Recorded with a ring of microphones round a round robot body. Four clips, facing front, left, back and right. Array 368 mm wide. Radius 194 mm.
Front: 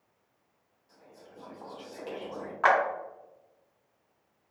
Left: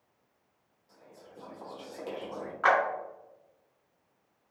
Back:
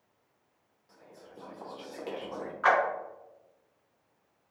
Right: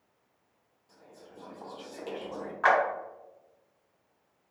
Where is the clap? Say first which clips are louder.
Right 1 dB, front 1 dB; straight ahead, 1.5 m.